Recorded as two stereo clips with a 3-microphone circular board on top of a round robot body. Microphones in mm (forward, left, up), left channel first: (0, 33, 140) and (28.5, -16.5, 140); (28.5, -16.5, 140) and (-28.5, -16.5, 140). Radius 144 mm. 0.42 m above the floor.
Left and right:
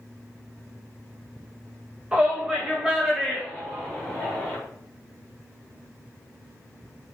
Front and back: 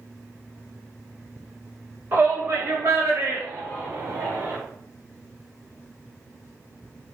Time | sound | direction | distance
2.1 | a shout | 135° right | 3 m